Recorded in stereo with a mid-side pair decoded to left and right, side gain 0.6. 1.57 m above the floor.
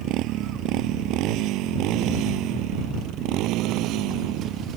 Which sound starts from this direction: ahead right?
A motorcycle, at 0.0 s.